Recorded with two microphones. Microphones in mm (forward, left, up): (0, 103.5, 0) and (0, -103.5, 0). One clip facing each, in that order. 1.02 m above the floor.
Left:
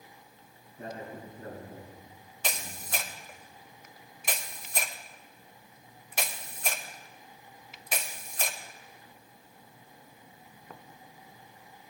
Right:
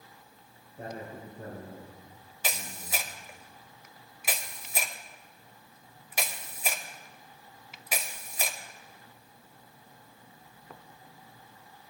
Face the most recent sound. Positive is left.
turn(degrees=-5)  # may be behind; listen again after turning